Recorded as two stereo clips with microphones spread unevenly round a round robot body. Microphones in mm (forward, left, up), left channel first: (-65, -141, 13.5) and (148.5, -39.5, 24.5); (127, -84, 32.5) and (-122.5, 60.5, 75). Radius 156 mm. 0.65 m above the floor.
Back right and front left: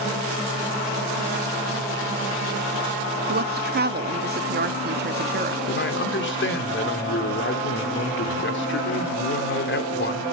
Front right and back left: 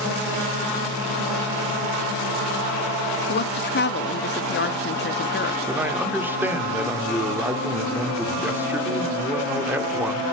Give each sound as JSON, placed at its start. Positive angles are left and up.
{"t": 3.3, "sound": "a woman speaking", "azimuth_deg": -5, "distance_m": 1.0}
{"t": 5.7, "sound": "a man speaking", "azimuth_deg": -125, "distance_m": 2.0}